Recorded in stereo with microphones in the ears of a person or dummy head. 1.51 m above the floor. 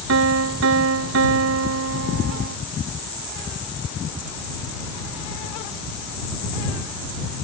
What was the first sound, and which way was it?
A piano, 80° right.